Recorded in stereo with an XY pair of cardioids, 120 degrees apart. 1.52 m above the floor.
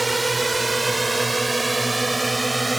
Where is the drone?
20° right; by 2.8 s 15° right.